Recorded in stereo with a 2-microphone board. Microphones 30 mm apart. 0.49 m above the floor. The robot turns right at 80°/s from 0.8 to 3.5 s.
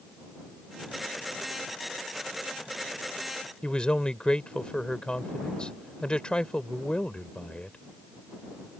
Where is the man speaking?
30° left (ahead or behind).